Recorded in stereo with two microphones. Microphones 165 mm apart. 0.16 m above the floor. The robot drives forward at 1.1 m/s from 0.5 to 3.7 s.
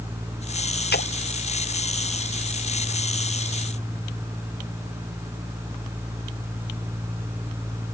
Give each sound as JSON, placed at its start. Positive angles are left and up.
{"t": 0.9, "sound": "a splash", "side_deg": 70}